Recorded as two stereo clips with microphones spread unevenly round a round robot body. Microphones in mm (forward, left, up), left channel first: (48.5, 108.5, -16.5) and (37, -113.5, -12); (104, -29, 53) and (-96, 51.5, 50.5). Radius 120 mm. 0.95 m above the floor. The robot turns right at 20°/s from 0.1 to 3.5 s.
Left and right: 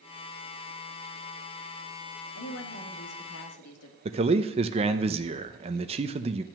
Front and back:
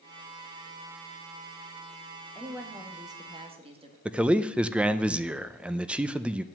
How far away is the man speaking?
About 0.6 m.